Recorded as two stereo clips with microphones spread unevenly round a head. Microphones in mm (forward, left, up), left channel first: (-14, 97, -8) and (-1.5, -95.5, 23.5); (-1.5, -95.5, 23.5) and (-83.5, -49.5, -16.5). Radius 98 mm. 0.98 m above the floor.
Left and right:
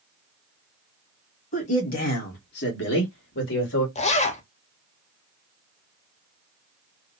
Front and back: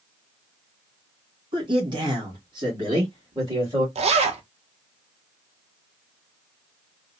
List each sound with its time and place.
1.5 s a man speaking: 140° left, 1.6 m; by 3.9 s 90° left, 1.8 m
4.0 s a zipper: 155° left, 0.8 m